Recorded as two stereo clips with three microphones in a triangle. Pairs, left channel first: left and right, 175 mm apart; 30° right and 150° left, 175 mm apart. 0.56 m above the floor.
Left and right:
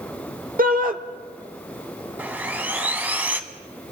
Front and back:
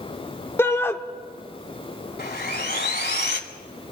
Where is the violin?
I don't hear a violin.